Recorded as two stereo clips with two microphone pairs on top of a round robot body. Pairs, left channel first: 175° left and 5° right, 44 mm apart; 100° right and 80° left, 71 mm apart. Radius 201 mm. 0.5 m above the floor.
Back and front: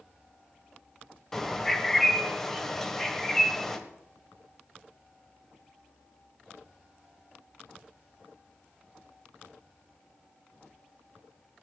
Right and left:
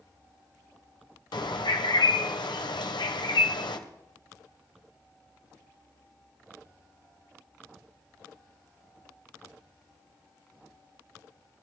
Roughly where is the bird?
Right.